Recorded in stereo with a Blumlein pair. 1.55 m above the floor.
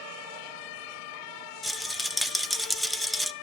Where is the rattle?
Straight ahead, 0.5 m.